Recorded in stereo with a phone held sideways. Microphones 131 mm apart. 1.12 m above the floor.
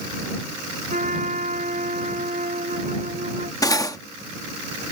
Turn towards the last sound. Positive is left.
turn(degrees=25)  # may be behind; listen again after turning